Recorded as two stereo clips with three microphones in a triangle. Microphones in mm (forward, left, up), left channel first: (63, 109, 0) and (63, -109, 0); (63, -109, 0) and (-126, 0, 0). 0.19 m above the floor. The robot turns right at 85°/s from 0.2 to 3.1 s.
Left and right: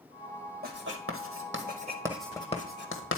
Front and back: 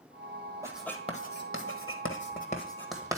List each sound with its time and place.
0.6 s writing: 135° right, 1.3 m; by 3.2 s 75° left, 1.3 m